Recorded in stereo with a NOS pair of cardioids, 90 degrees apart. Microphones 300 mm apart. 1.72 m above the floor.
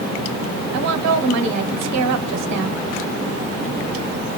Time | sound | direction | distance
0.7 | a woman speaking | 65° right | 1.1 m